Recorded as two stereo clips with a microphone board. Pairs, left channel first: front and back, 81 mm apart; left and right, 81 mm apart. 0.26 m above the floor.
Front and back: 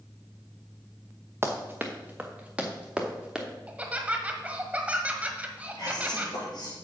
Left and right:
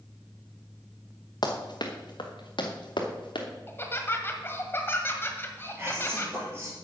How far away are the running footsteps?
About 1.6 m.